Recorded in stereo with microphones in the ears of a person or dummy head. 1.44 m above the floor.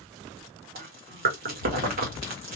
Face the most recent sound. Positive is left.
turn(degrees=-45)  # may be behind; listen again after turning